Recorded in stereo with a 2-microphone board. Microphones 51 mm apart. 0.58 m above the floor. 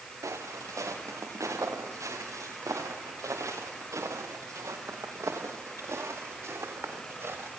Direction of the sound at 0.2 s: 75° right (ahead or behind).